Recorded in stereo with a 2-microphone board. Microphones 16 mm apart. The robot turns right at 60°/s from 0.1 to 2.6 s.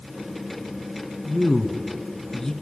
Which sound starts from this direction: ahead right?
A man speaking, at 1.2 s.